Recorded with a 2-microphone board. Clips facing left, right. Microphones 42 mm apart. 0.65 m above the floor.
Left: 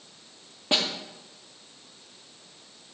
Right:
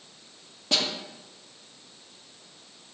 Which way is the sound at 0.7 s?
25° left (ahead or behind).